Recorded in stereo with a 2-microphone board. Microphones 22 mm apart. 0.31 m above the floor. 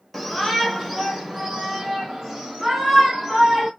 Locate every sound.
0.1 s a shout: 5° left (ahead or behind), 1.3 m; by 3.7 s 25° right (ahead or behind), 2.5 m